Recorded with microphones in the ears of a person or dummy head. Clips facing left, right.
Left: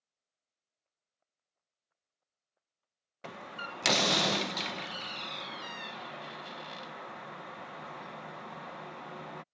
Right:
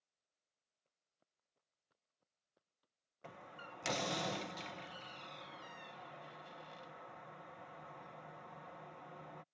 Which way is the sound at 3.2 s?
70° left (ahead or behind).